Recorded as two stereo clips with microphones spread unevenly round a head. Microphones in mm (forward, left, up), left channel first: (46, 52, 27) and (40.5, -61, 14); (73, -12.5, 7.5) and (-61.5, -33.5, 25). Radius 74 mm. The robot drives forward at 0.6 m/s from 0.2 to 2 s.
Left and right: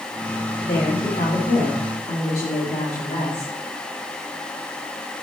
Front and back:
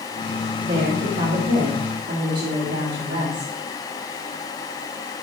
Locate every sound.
0.6 s a woman speaking: 140° left, 3 m; by 3.5 s 150° left, 3.5 m